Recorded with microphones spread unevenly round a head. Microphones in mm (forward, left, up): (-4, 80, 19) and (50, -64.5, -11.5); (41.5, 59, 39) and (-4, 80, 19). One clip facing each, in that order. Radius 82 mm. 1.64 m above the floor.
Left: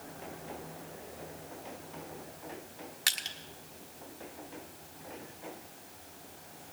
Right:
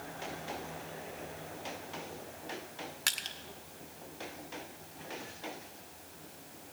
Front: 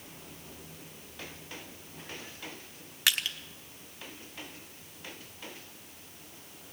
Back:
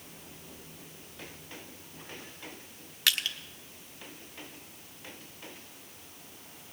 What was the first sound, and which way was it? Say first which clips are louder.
Crushing: left 1 dB, even; 35° left.